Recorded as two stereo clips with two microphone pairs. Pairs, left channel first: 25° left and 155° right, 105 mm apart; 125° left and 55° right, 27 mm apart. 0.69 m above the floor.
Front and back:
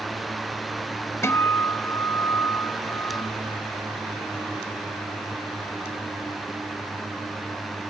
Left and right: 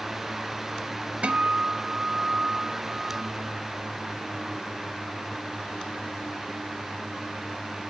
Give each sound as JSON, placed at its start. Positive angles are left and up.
{"t": 1.2, "sound": "a guitar", "azimuth_deg": -35, "distance_m": 0.6}